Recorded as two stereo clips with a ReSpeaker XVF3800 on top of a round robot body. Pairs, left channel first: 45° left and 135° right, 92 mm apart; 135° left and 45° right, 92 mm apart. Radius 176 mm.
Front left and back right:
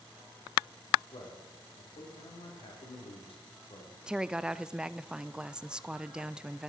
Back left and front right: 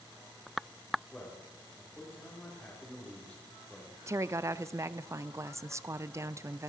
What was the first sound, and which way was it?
A man speaking, 60° left.